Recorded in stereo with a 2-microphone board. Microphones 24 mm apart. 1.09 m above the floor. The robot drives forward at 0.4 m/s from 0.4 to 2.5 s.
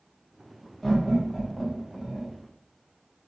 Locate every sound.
0.8 s laughter: 15° left (ahead or behind), 1.1 m; by 2.3 s 10° left (ahead or behind), 1.7 m